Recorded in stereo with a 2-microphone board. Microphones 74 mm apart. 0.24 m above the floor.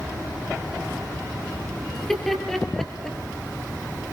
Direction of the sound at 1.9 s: 5° left (ahead or behind).